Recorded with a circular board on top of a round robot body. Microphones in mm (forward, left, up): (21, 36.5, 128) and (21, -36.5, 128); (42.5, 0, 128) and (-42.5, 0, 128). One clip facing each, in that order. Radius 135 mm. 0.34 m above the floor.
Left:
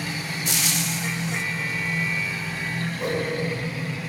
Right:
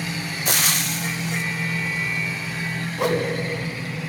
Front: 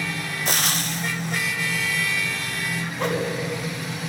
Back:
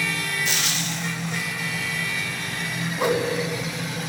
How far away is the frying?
About 0.6 m.